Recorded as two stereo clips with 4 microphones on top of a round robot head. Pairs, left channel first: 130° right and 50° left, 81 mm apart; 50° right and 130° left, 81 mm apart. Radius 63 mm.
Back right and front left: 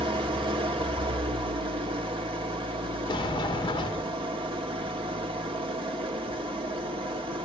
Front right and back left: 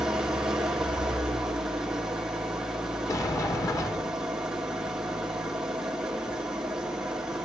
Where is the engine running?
50° left, 1.8 m.